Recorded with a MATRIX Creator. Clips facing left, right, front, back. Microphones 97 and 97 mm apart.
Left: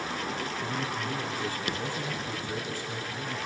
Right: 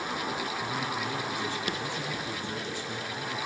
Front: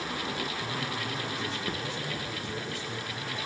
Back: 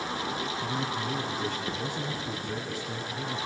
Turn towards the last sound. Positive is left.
turn(degrees=-165)